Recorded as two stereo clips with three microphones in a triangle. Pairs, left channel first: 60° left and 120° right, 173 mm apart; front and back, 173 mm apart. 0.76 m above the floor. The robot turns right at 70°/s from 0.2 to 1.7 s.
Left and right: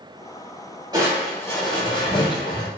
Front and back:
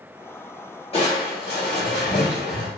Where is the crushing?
50° right, 1.9 m; by 2.7 s straight ahead, 1.9 m.